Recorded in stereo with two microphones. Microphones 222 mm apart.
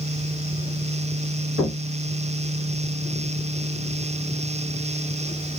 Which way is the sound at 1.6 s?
65° left (ahead or behind).